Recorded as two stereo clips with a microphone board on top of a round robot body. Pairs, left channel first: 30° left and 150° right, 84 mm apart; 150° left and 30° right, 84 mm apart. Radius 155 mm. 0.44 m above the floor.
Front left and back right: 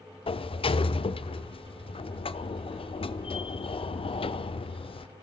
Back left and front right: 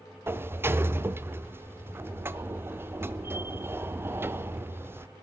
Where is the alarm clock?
No alarm clock in this recording.